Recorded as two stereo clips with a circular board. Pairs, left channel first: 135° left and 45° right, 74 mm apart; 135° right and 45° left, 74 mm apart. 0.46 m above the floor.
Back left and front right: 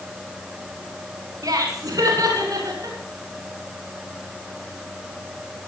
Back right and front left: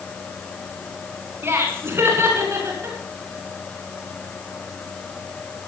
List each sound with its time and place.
1.4 s laughter: 10° right, 4.5 m